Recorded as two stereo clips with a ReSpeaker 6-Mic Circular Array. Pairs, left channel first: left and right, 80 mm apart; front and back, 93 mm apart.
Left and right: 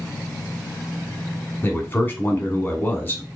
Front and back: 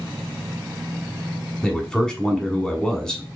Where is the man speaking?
70° left, 1.1 m.